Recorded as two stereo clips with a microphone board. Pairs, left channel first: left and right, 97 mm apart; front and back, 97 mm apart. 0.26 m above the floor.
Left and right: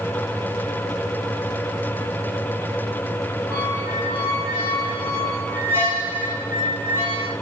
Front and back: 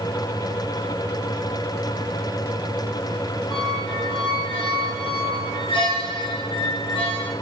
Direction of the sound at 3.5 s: 25° right.